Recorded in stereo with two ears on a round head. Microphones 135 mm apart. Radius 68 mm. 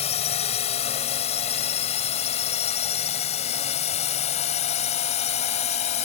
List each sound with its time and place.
0.0 s a drone: 45° left (ahead or behind)